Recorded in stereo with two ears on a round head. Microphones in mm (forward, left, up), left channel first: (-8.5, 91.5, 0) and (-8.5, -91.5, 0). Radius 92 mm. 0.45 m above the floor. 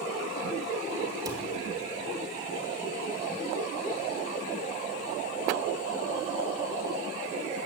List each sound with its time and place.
1.2 s a cupboard door: 20° right (ahead or behind), 3 m